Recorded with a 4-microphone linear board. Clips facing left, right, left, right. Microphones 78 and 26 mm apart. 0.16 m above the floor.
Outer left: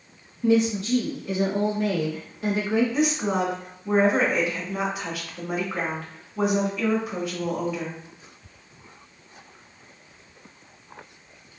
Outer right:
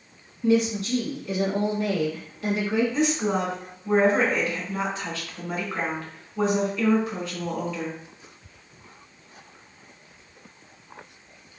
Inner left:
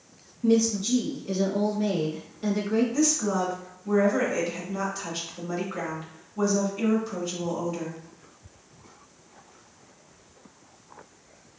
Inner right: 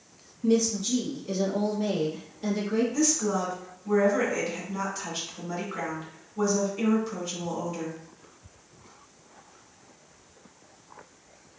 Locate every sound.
0.4 s a woman speaking: 30° left (ahead or behind), 1.1 m
2.9 s a woman speaking: 10° left (ahead or behind), 1.7 m